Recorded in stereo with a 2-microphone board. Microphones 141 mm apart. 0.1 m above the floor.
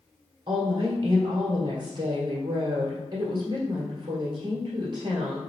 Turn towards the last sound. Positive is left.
turn(degrees=-35)  # may be behind; listen again after turning